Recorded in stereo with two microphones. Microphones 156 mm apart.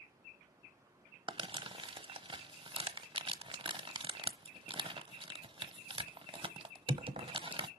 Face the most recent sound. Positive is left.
turn(degrees=-35)  # may be behind; listen again after turning